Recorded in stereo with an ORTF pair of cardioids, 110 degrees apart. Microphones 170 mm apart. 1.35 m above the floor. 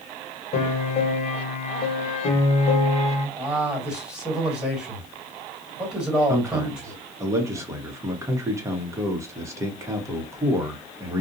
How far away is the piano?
About 1.2 m.